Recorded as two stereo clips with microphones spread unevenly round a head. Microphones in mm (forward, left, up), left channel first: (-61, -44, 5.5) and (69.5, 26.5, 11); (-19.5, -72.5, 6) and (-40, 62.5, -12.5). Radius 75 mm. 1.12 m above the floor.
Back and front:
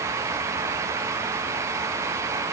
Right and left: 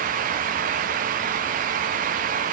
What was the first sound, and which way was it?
Only background noise.